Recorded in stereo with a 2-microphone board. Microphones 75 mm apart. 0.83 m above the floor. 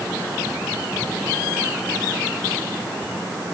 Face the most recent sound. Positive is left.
No sound to turn to.